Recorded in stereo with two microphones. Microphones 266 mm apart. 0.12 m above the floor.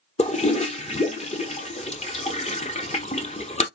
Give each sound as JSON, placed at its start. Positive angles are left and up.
{"t": 0.2, "sound": "a toilet flushing", "side_deg": 25, "distance_m": 0.6}